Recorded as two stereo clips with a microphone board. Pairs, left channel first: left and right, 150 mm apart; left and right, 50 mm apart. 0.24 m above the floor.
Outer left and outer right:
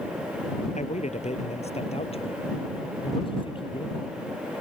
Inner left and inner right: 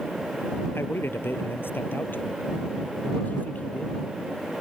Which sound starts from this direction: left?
A man speaking, at 0.8 s.